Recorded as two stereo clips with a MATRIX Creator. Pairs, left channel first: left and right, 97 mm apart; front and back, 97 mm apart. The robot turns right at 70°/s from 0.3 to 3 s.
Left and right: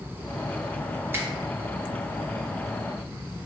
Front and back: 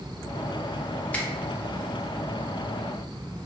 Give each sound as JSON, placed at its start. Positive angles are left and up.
{"t": 1.1, "sound": "a finger snap", "azimuth_deg": -60, "distance_m": 0.8}